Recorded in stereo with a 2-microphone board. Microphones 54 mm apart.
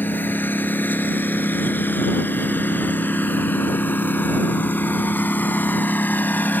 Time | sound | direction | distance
0.0 | a lawn mower | 35° left (ahead or behind) | ?